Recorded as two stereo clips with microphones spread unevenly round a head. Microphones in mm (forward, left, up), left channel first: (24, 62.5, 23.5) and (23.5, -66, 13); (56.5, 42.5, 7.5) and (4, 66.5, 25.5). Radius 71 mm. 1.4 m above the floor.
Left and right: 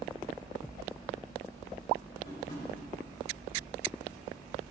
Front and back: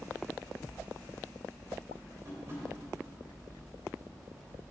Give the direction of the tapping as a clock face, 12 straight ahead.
8 o'clock.